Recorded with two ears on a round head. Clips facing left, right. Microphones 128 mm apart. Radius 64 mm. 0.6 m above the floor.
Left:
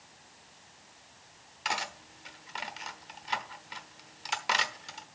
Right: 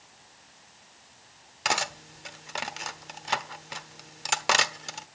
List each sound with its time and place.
1.6 s cutlery clinking: 60° right (ahead or behind), 1.0 m